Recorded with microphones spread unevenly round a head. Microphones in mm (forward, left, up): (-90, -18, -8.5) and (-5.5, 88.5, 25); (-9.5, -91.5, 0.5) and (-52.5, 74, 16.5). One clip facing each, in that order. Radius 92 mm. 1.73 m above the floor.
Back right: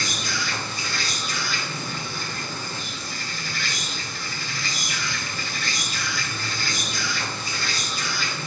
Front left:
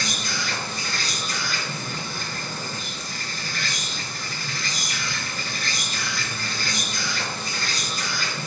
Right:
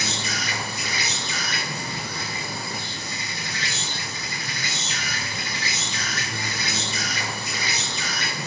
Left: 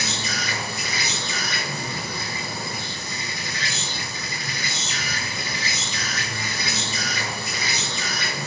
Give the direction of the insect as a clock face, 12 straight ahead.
9 o'clock.